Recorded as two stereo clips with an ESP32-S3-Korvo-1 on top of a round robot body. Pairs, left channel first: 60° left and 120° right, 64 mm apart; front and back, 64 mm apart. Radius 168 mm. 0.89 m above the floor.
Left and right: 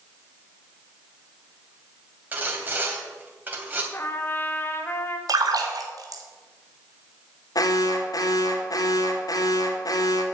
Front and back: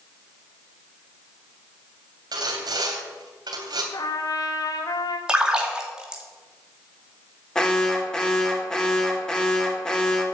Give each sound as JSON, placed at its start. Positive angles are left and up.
{"t": 2.3, "sound": "sawing", "azimuth_deg": 175, "distance_m": 2.5}
{"t": 3.9, "sound": "a trumpet", "azimuth_deg": 5, "distance_m": 1.7}
{"t": 5.3, "sound": "a splash", "azimuth_deg": -105, "distance_m": 2.0}
{"t": 7.5, "sound": "an alarm", "azimuth_deg": 80, "distance_m": 2.0}